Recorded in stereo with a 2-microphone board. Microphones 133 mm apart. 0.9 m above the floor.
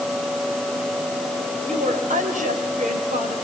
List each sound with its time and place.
1.7 s a woman speaking: 75° right (ahead or behind), 3.5 m